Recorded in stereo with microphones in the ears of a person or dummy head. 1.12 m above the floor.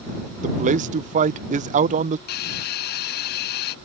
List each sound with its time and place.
0.4 s a man speaking: 40° right (ahead or behind)
2.3 s a hiss: 45° left (ahead or behind)